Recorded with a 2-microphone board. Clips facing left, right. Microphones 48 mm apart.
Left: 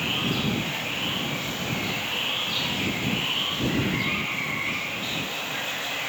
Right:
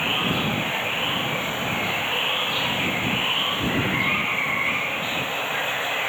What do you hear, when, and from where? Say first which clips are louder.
0.0 s running water: right 3 dB; 25° right (ahead or behind)